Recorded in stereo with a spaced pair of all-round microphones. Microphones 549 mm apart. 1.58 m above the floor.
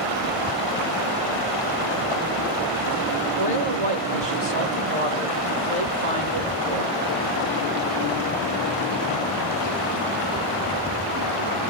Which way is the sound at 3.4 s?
70° right (ahead or behind).